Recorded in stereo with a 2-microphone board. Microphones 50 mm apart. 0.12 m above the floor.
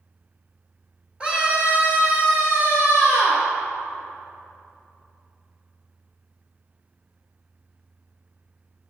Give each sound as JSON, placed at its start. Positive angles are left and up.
{"t": 1.2, "sound": "a scream", "side_deg": -20, "distance_m": 1.8}